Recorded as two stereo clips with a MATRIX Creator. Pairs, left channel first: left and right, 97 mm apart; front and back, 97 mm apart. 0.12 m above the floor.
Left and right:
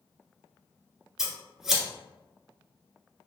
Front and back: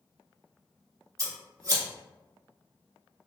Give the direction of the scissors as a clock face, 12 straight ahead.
6 o'clock.